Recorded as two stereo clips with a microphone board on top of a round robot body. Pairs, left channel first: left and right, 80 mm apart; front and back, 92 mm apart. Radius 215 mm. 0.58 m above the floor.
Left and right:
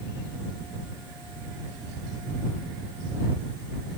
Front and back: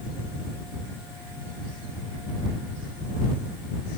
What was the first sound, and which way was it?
Only background noise.